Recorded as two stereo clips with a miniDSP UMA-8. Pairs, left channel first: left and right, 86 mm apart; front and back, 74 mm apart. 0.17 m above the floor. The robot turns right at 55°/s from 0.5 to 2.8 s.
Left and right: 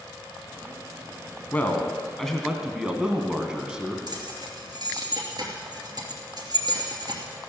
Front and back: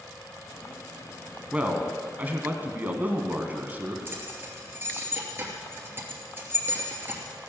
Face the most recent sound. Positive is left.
turn(degrees=-120)